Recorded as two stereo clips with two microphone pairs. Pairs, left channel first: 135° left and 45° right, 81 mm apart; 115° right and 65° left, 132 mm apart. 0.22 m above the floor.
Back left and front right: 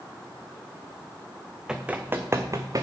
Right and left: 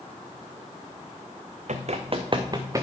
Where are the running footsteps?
35° left, 1.0 m; by 2.8 s 5° right, 1.2 m.